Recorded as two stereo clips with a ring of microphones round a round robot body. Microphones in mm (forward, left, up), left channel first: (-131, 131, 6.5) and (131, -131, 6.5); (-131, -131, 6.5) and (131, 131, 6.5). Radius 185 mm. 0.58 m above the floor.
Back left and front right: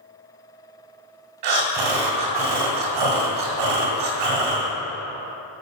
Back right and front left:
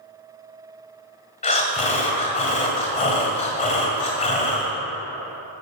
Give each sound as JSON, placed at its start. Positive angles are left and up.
{"t": 1.4, "sound": "breathing", "azimuth_deg": -65, "distance_m": 1.7}